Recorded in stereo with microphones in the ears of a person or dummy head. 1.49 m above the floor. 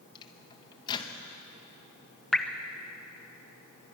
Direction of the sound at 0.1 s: 20° left (ahead or behind).